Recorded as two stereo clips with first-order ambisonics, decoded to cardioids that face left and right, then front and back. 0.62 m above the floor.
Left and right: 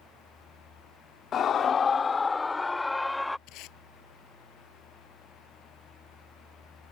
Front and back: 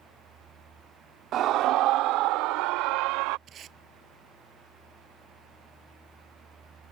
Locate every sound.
1.3 s a scream: 140° left; by 3.4 s 175° left
3.5 s tape being pulled: 125° left